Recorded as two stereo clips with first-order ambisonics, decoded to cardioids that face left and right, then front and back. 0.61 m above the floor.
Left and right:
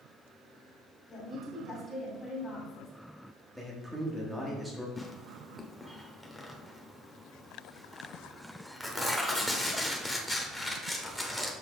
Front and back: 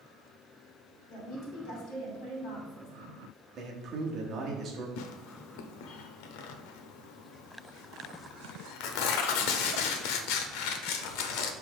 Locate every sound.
1.1 s a woman speaking: 20° left, 2.5 m
3.5 s a man speaking: 175° right, 1.2 m
5.0 s tearing paper: 5° left, 0.7 m